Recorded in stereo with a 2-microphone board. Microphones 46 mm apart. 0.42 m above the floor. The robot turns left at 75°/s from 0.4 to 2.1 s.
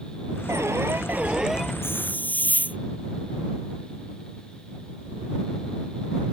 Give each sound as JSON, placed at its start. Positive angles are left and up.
{"t": 0.5, "sound": "an alarm", "azimuth_deg": -95}
{"t": 1.8, "sound": "a hiss", "side_deg": 60}